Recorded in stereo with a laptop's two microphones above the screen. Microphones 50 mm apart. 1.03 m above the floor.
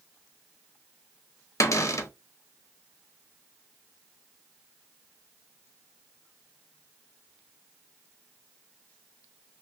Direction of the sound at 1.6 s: 85° left.